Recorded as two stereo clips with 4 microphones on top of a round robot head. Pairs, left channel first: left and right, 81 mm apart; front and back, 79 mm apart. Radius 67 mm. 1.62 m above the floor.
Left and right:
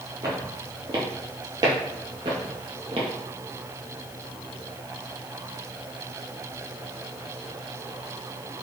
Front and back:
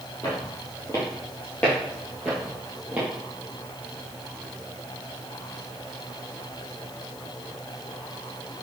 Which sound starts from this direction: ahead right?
Footsteps, at 0.2 s.